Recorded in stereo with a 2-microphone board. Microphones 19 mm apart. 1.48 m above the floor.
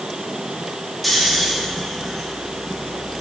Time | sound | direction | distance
1.0 | snoring | 5° left (ahead or behind) | 2.5 m